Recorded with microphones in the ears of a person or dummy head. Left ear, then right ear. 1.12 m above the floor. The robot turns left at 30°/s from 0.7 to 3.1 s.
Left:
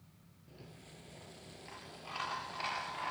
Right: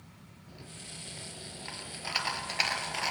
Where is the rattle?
20° right, 4 m; by 3.1 s 90° right, 4 m.